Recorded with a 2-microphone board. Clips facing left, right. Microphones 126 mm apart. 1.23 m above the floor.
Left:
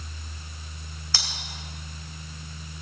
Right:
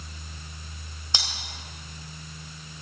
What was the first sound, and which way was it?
Cutlery clinking, 20° right (ahead or behind).